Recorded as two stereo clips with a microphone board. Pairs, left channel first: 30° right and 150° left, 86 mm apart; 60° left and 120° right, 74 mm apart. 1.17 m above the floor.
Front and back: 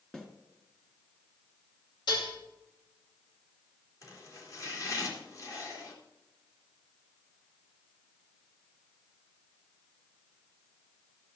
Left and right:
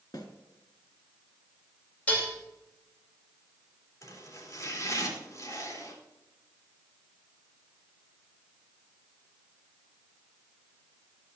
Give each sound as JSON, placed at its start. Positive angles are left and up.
{"t": 0.1, "sound": "a snare drum", "azimuth_deg": 50, "distance_m": 2.5}
{"t": 2.1, "sound": "dishes clattering", "azimuth_deg": -10, "distance_m": 2.5}
{"t": 4.0, "sound": "chopping", "azimuth_deg": 15, "distance_m": 3.5}